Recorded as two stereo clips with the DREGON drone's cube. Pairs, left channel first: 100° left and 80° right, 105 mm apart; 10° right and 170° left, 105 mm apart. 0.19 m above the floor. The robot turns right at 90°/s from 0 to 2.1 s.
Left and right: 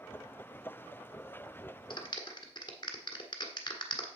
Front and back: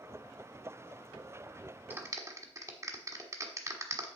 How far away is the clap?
About 1.4 m.